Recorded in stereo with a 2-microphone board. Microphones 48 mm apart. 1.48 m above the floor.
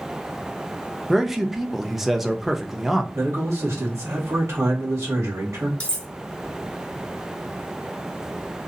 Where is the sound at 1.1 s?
5° right (ahead or behind), 0.7 m.